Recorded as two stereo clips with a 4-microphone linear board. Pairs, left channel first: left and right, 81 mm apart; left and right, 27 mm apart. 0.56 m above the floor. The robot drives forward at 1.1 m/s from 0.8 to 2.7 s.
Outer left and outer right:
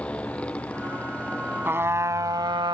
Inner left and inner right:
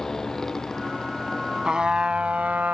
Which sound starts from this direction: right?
A trumpet, at 1.6 s.